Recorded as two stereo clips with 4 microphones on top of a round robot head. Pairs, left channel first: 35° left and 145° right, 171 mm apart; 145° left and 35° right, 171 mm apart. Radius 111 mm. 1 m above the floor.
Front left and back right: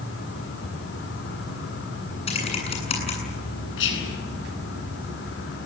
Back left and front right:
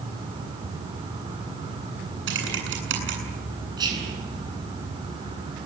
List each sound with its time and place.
0.0 s an insect: 30° left, 5.5 m
2.3 s typing on a keyboard: 20° right, 8.5 m
3.8 s whispering: 35° left, 9.5 m